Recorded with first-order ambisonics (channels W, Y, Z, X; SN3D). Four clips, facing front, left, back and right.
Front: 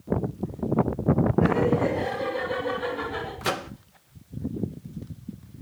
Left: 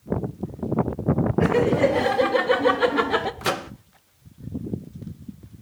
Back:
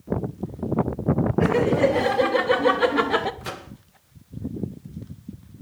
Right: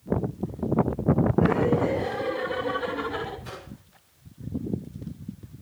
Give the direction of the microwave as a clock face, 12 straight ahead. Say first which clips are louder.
Left 15 dB, front 6 dB; 10 o'clock.